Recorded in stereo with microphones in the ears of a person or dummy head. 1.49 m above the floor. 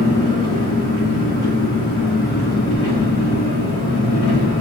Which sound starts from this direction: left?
An engine running, at 0.0 s.